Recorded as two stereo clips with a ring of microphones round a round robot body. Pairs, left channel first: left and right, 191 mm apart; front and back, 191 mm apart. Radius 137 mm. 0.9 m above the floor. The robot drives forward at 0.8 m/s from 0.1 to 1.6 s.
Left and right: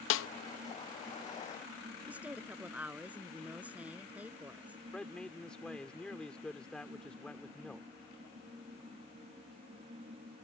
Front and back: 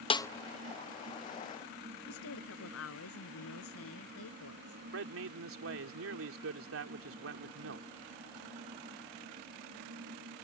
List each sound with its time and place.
0.1 s a snare drum: 65° left; by 0.3 s 80° left
2.1 s a woman speaking: 5° right
4.9 s a man speaking: 175° left